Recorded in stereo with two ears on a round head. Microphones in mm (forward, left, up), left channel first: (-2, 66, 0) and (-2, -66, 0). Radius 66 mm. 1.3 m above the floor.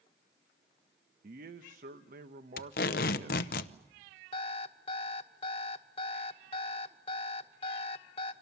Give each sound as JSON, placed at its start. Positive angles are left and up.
{"t": 1.2, "sound": "a man speaking", "side_deg": -60, "distance_m": 1.0}
{"t": 2.6, "sound": "tape being pulled", "side_deg": 70, "distance_m": 0.8}
{"t": 4.3, "sound": "an alarm clock", "side_deg": 40, "distance_m": 1.1}